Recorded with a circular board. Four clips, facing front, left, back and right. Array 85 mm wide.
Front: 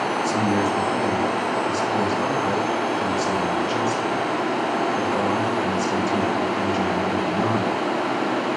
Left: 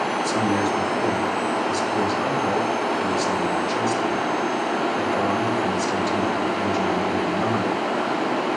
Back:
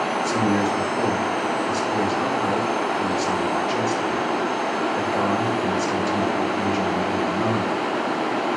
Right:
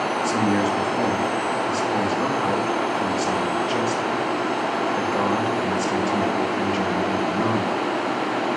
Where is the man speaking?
90° right, 1.4 m.